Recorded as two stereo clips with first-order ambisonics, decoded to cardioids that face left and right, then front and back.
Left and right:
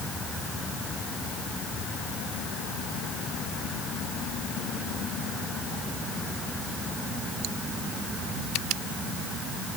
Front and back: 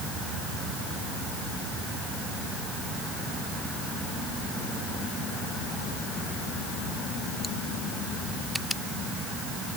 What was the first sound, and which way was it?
Only background noise.